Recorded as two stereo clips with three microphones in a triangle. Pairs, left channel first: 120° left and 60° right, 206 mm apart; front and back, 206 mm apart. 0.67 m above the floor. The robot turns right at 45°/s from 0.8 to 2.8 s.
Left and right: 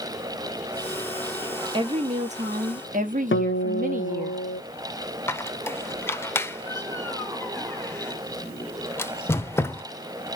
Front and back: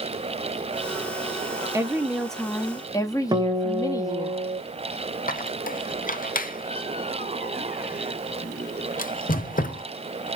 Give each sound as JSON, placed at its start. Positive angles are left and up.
{"t": 1.7, "sound": "a woman speaking", "azimuth_deg": -115, "distance_m": 1.0}
{"t": 3.3, "sound": "a guitar", "azimuth_deg": 115, "distance_m": 0.7}
{"t": 5.3, "sound": "a squeak", "azimuth_deg": 40, "distance_m": 0.6}